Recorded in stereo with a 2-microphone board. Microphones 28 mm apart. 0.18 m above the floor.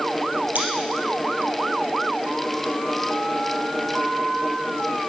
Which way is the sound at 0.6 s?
75° right (ahead or behind).